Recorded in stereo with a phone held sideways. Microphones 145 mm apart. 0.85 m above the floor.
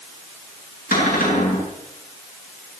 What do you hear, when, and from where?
0.9 s a cupboard door: 85° left, 7.5 m